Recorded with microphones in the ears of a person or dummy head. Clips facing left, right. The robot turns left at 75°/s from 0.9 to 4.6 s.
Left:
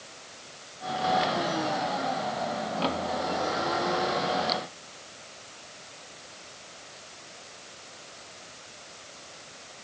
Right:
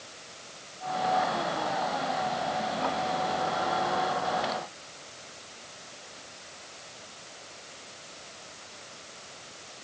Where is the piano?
I don't hear a piano.